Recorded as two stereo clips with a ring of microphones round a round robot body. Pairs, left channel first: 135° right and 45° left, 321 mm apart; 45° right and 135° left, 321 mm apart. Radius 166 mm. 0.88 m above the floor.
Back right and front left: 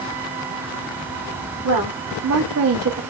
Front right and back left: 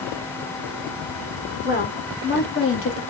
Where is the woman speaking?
15° left, 2.5 m; by 3.0 s straight ahead, 1.6 m.